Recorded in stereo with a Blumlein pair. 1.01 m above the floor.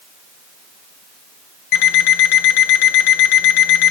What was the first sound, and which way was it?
An alarm clock, 45° left.